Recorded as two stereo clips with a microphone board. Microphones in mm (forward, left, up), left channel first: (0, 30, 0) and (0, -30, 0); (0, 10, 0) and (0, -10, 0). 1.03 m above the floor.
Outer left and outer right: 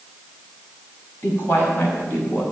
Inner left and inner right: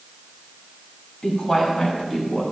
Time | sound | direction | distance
1.2 | a woman speaking | 35° left (ahead or behind) | 5.5 m